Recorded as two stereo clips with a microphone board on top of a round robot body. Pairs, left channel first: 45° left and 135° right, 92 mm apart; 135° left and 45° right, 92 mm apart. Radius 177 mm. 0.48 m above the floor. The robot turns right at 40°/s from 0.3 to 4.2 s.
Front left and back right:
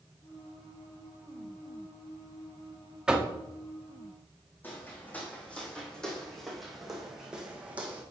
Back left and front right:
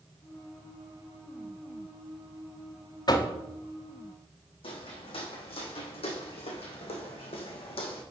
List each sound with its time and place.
3.1 s knocking: 145° left, 1.4 m; by 3.3 s 155° left, 1.4 m
4.6 s footsteps: 115° left, 2.5 m; by 8.0 s 155° left, 2.5 m